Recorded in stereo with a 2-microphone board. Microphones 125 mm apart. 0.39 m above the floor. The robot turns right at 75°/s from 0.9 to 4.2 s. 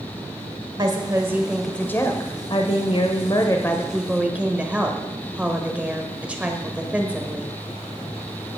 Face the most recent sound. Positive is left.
turn(degrees=-165)